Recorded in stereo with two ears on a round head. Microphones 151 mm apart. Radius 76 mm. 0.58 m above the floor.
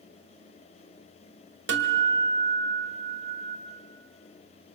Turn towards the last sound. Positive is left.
turn(degrees=-70)  # may be behind; listen again after turning